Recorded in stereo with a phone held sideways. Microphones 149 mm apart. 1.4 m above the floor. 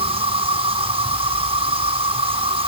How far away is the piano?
I don't hear a piano.